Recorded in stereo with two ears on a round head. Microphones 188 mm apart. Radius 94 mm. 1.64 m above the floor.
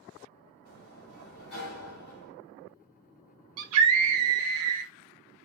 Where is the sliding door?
45° left (ahead or behind), 3.5 m.